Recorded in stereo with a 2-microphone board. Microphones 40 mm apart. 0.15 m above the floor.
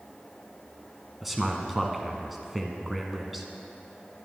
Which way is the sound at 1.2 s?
5° right (ahead or behind).